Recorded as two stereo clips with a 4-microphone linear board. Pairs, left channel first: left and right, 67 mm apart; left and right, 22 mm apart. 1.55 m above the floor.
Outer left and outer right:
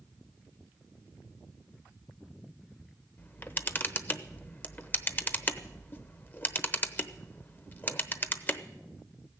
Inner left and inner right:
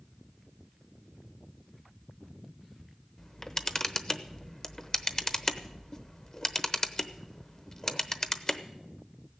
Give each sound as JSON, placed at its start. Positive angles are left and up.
{"t": 3.2, "sound": "a camera shutter", "side_deg": 30, "distance_m": 0.8}